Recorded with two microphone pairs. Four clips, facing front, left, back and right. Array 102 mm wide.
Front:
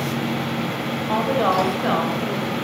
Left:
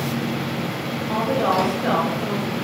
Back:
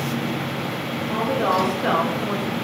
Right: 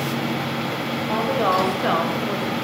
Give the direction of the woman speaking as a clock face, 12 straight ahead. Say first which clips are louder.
Even, front 2 dB; 1 o'clock.